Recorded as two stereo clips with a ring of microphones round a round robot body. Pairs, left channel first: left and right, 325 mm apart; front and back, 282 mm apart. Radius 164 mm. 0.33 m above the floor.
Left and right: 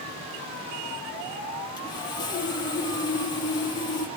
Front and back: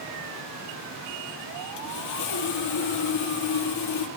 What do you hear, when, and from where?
1.8 s sawing: 10° left, 5 m